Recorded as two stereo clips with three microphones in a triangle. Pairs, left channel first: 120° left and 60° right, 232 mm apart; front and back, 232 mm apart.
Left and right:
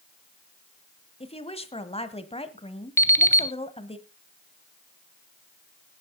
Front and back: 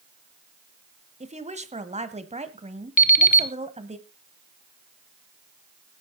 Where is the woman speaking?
155° left, 1.1 m.